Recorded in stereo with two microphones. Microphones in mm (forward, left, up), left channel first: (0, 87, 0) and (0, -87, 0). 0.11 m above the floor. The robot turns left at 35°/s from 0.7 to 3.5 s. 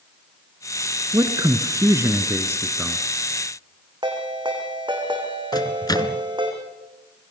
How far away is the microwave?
About 0.9 m.